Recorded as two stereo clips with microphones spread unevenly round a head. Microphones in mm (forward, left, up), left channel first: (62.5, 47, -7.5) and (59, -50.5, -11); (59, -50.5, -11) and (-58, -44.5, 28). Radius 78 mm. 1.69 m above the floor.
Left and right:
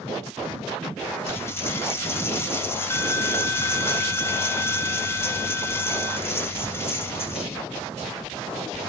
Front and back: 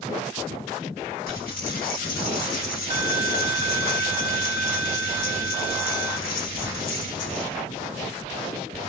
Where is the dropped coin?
30° left, 2.5 m.